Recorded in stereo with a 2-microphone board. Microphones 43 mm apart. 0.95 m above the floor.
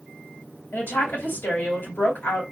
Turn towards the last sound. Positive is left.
turn(degrees=60)  # may be behind; listen again after turning